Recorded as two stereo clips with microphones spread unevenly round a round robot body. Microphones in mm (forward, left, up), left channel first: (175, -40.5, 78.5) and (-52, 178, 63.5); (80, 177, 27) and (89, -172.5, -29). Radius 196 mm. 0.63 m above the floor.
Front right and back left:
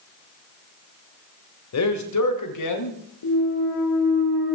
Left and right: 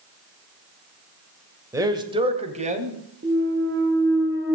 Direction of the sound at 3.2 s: 30° right.